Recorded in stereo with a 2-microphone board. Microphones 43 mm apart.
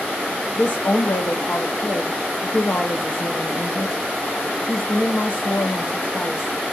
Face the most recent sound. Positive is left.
turn(degrees=70)  # may be behind; listen again after turning